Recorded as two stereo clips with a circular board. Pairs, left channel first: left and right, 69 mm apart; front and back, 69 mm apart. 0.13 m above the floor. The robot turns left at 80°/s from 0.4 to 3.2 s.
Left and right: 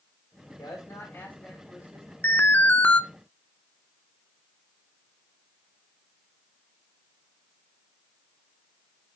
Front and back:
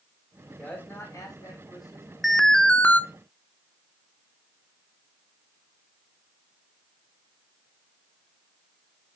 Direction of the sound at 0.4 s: 95° left.